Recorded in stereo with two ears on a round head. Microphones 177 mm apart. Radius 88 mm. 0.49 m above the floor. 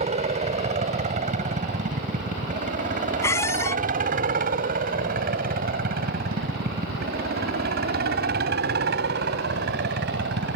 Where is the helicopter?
35° right (ahead or behind); by 10.6 s 60° right (ahead or behind).